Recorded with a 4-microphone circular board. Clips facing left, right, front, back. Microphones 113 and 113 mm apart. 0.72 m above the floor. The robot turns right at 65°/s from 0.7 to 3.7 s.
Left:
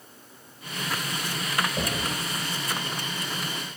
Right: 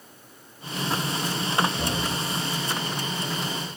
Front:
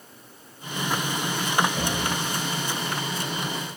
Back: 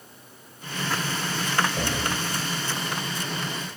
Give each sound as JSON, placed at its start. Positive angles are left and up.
{"t": 1.8, "sound": "knocking", "azimuth_deg": 105, "distance_m": 3.0}